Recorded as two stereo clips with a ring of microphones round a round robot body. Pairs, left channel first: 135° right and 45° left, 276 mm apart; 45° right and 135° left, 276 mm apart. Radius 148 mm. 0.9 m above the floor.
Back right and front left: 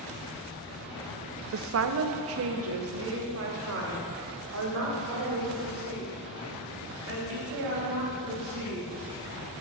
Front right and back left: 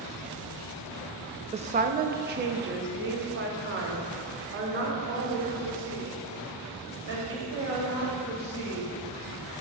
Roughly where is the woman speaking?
Left.